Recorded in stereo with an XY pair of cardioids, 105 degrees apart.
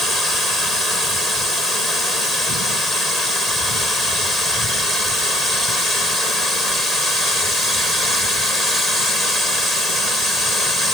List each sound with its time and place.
Only background noise.